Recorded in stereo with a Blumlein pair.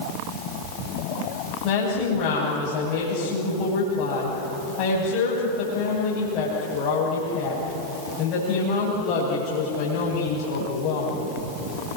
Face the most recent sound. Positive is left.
turn(degrees=40)